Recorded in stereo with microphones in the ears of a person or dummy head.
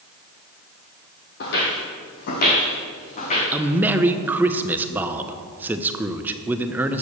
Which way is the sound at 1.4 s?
45° left (ahead or behind).